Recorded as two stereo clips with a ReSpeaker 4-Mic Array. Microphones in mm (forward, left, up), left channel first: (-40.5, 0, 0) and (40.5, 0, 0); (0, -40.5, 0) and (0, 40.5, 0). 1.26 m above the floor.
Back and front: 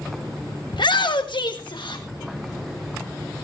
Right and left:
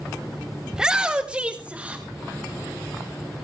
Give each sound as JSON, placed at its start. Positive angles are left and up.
{"t": 0.7, "sound": "a shout", "azimuth_deg": 170, "distance_m": 1.0}